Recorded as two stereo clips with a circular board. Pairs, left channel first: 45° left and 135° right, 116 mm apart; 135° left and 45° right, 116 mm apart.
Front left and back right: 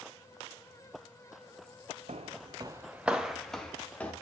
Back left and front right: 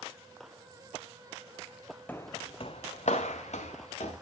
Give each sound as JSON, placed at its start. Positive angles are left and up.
{"t": 2.1, "sound": "footsteps", "azimuth_deg": -150, "distance_m": 0.6}